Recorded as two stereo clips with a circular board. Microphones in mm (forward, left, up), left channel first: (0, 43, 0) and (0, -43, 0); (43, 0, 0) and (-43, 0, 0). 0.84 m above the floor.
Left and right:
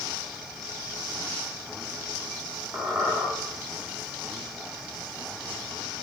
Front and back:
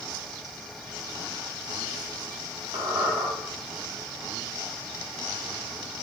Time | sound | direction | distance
2.7 | a squeak | 160° right | 1.0 m